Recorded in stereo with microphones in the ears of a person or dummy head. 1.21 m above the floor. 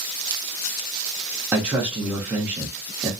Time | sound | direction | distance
1.5 | a man speaking | 10° right (ahead or behind) | 0.7 m